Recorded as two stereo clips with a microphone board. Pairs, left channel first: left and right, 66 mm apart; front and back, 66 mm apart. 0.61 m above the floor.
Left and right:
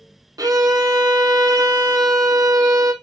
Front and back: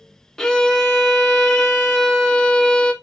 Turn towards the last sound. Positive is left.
turn(degrees=-80)